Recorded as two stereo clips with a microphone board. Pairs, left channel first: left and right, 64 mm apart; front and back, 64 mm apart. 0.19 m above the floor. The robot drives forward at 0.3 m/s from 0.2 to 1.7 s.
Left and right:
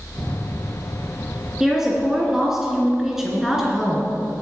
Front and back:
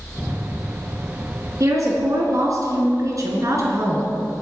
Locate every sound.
1.6 s a woman speaking: 170° right, 2.5 m